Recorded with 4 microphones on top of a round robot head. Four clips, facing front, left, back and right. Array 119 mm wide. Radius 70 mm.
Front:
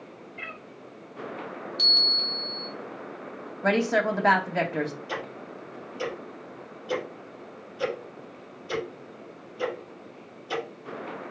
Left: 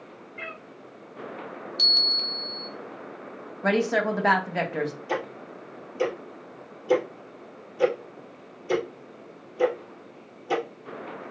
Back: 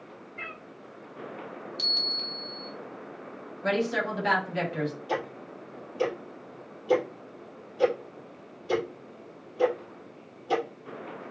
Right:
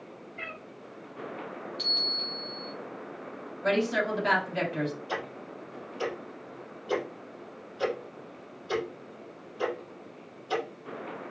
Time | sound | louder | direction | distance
0.4 | a cat meowing | left 3 dB, even | 120° left | 3 m
1.8 | a bell | left 2 dB, front 4 dB | 90° left | 1.8 m
3.6 | a woman speaking | left 3 dB, front 4 dB | 45° left | 2 m
5.1 | ticking | left 5 dB, back 3 dB | 120° left | 5.5 m